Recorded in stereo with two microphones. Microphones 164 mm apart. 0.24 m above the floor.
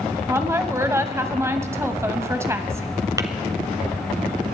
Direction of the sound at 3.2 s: 20° right (ahead or behind).